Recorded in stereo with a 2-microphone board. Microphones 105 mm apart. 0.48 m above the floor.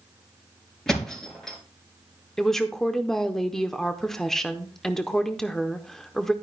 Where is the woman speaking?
5° left (ahead or behind), 0.9 m.